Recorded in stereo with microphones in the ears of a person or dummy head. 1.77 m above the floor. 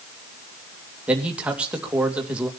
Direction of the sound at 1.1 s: 10° right (ahead or behind).